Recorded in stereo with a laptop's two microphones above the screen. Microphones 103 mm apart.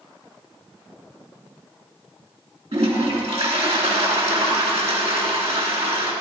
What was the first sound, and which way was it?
A toilet flushing, 75° right (ahead or behind).